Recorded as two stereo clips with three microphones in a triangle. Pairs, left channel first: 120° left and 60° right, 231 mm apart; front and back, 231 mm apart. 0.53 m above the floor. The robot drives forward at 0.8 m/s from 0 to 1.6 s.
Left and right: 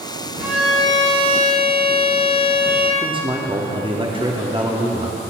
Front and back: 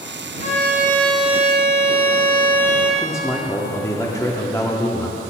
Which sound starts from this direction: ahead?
A violin, at 0.4 s.